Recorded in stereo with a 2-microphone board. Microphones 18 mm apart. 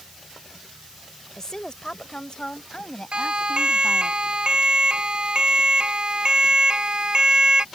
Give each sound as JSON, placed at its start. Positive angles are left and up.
{"t": 1.4, "sound": "a woman speaking", "side_deg": 35}
{"t": 3.1, "sound": "a siren", "side_deg": -60}